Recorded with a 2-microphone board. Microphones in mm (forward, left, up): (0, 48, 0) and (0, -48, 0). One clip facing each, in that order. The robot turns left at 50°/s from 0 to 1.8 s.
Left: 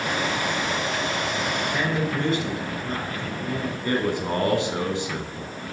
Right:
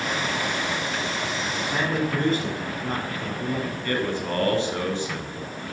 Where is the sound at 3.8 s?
20° left (ahead or behind), 1.4 m.